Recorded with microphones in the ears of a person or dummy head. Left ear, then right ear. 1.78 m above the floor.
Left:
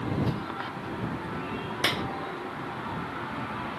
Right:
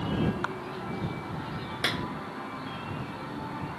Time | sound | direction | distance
1.8 | a clap | 15° left (ahead or behind) | ?